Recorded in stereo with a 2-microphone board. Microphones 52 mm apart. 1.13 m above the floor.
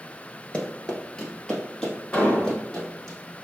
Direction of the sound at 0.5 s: 15° left (ahead or behind).